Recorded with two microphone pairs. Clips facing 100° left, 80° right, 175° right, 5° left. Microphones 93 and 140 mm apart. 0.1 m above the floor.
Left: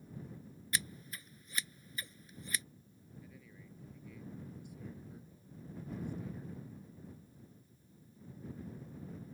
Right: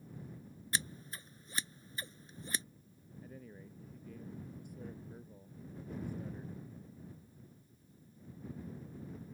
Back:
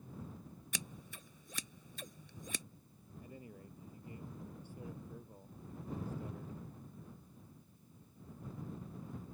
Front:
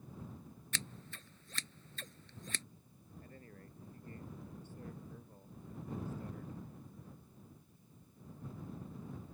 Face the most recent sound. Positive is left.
turn(degrees=-100)